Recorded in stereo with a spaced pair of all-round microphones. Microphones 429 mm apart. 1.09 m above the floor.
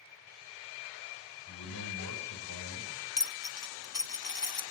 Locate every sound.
1.5 s a man speaking: 45° left (ahead or behind), 7.5 m
3.2 s a dropped coin: 50° left (ahead or behind), 0.6 m